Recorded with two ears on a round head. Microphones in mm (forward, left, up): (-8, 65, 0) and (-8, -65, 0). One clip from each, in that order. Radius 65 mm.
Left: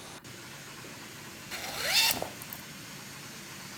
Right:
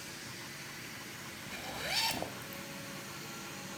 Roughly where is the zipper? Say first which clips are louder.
Left 7 dB; left.